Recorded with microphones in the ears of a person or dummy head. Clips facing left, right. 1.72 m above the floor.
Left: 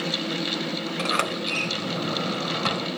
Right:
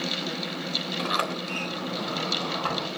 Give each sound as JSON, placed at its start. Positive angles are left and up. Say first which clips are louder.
{"t": 1.0, "sound": "a sliding door", "louder": "left 1 dB", "side_deg": 35, "distance_m": 3.5}